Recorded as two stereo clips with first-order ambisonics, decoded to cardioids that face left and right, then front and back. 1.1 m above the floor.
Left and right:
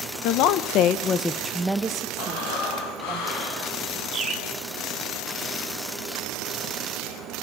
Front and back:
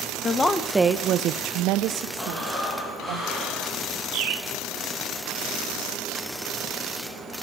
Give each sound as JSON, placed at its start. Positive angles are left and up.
{"t": 0.2, "sound": "a woman speaking", "azimuth_deg": 70, "distance_m": 1.3}
{"t": 2.2, "sound": "breathing", "azimuth_deg": 80, "distance_m": 4.5}
{"t": 4.1, "sound": "a bird", "azimuth_deg": -150, "distance_m": 3.0}